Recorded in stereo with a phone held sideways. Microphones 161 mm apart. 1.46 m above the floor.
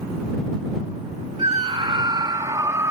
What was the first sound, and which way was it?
A scream, 40° right (ahead or behind).